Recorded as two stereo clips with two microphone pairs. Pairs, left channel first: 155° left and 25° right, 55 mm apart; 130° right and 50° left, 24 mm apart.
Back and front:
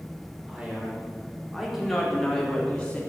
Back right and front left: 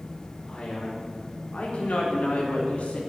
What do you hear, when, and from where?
0.5 s a man speaking: 95° right, 5 m; by 3.0 s 140° right, 3.5 m